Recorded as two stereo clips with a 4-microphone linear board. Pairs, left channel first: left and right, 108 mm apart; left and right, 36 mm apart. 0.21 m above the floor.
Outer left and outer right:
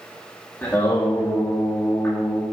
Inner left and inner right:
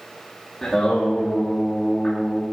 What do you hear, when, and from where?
0.6 s singing: 20° left (ahead or behind), 5.5 m